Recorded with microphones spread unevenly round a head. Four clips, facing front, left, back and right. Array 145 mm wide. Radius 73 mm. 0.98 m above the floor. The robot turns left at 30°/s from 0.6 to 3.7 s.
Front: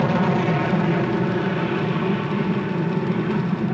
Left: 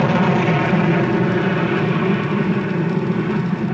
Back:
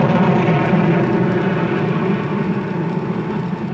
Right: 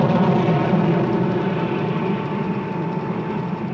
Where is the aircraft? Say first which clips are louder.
Left 1 dB, back 5 dB; straight behind; by 3.7 s 70° left.